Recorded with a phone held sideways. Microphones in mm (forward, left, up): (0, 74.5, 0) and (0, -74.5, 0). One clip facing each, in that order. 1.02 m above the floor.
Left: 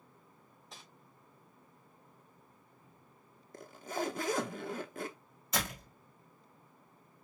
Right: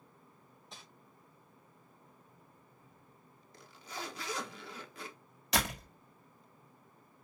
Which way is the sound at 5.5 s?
75° right (ahead or behind).